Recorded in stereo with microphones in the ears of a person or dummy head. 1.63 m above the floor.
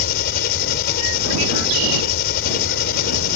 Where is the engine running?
55° left (ahead or behind).